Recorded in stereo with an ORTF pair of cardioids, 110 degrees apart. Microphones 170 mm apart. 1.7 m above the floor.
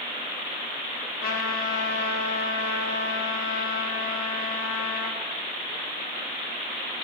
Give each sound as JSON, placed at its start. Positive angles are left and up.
{"t": 1.2, "sound": "a trumpet", "azimuth_deg": 55, "distance_m": 0.8}